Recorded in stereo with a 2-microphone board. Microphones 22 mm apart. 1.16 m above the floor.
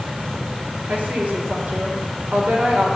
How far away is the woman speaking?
About 3.5 m.